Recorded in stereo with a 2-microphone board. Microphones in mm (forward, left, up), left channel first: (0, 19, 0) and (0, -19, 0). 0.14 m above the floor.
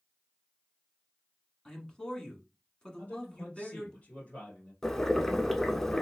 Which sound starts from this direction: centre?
Boiling, at 4.8 s.